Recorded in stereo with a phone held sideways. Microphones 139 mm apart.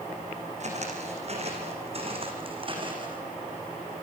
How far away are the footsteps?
About 4.5 m.